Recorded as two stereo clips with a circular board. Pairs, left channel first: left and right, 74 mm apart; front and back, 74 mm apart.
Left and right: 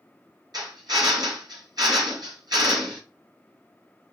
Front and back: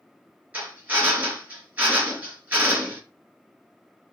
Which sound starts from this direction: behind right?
A drill, at 0.5 s.